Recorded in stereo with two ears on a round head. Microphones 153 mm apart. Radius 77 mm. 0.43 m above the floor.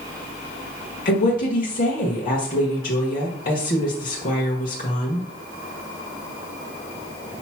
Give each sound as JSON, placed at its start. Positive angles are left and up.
{"t": 1.1, "sound": "a woman speaking", "side_deg": 50, "distance_m": 1.4}